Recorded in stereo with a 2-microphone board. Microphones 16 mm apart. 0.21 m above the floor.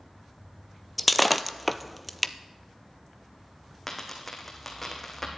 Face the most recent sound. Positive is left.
turn(degrees=10)  # may be behind; listen again after turning